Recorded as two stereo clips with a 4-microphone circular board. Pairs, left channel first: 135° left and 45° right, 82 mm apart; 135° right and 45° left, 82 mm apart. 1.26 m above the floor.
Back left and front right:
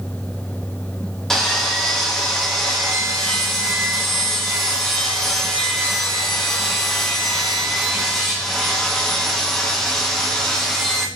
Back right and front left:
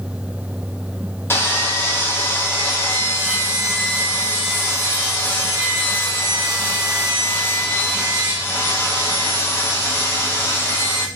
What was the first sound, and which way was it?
Sawing, 145° right.